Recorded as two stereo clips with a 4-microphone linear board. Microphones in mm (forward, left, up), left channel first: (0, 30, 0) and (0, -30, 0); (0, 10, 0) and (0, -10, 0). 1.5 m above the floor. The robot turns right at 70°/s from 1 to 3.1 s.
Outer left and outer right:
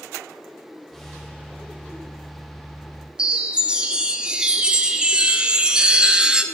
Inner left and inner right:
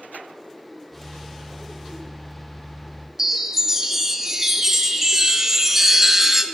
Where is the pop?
I don't hear a pop.